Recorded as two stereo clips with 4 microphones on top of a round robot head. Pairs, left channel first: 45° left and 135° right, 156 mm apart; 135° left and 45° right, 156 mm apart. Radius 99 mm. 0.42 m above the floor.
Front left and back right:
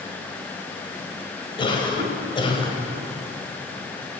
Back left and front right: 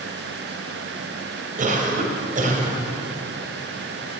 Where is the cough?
10° right, 1.8 m.